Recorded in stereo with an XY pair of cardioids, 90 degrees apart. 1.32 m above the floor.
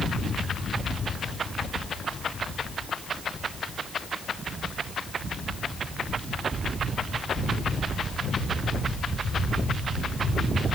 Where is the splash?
I don't hear a splash.